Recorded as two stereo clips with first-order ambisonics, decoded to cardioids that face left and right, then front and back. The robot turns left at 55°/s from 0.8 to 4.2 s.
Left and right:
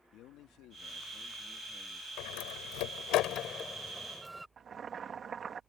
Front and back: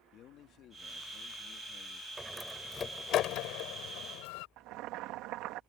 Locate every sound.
0.1 s a man speaking: 50° left; by 2.1 s 20° right
2.2 s a door slam: 105° left; by 4.5 s 10° right
4.6 s boiling: 155° right